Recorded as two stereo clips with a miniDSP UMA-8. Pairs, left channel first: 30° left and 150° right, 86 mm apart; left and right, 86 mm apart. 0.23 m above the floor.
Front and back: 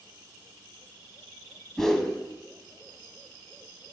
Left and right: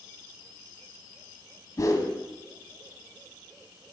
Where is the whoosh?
115° left, 0.6 m.